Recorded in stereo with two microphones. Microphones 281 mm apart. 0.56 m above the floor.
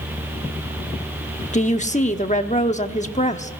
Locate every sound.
1.5 s a woman speaking: 25° left (ahead or behind), 1.1 m